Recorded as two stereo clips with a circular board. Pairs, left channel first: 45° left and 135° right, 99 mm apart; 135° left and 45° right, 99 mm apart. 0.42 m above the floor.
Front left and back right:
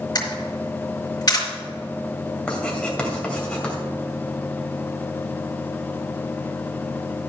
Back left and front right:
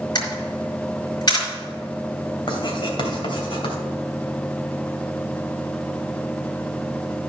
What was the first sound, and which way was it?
A camera shutter, 95° left.